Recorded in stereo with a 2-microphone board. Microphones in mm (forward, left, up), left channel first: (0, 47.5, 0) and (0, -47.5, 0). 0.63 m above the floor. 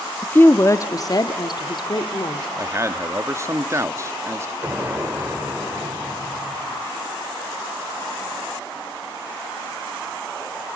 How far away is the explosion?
About 1.8 m.